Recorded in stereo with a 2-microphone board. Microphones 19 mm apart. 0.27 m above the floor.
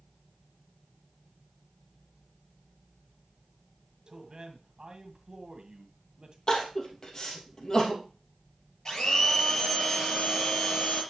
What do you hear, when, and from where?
4.1 s a man speaking: 45° right (ahead or behind), 1.9 m
6.5 s crying: 35° left (ahead or behind), 2.5 m
8.8 s a blender: 45° left (ahead or behind), 5.5 m